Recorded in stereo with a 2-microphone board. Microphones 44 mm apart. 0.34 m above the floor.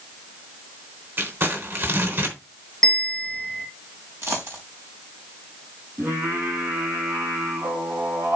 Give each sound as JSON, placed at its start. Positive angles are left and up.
{"t": 1.2, "sound": "crumpling", "side_deg": -60, "distance_m": 3.5}
{"t": 2.8, "sound": "a bell", "side_deg": 10, "distance_m": 4.0}
{"t": 4.2, "sound": "a dropped coin", "side_deg": -85, "distance_m": 4.5}
{"t": 6.0, "sound": "singing", "side_deg": -75, "distance_m": 5.0}